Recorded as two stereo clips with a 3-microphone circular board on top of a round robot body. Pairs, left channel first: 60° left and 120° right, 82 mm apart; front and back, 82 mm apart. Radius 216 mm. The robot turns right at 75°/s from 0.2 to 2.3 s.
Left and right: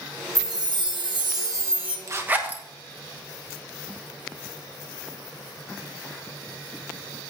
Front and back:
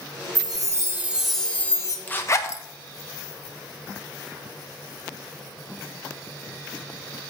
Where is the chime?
160° right, 1.3 m; by 2.0 s 40° right, 1.3 m.